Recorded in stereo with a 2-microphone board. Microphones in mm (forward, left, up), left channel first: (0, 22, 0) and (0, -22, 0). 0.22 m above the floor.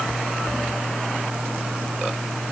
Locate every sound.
Only background noise.